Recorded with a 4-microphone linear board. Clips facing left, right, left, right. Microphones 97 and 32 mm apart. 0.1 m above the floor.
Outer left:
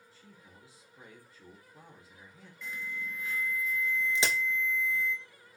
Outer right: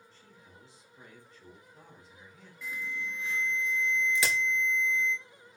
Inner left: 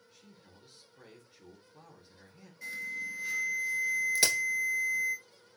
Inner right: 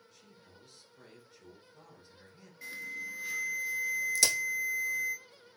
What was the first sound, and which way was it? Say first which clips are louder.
A man speaking: even, inner left 3 dB; 10° left (ahead or behind).